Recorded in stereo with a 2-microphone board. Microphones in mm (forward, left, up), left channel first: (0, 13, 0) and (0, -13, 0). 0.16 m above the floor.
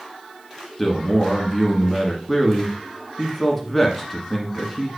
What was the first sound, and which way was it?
A man speaking, 10° left (ahead or behind).